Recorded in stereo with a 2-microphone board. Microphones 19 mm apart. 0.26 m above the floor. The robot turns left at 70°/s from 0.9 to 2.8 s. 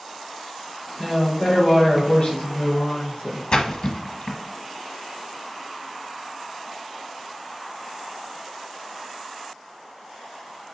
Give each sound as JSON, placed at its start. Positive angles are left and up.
{"t": 1.0, "sound": "a woman speaking", "azimuth_deg": 150, "distance_m": 2.0}
{"t": 3.5, "sound": "a splash", "side_deg": 45, "distance_m": 0.9}